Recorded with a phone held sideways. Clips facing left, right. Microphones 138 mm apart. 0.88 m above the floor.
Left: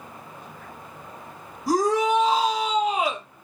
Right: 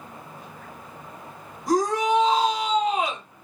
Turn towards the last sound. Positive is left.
turn(degrees=5)  # may be behind; listen again after turning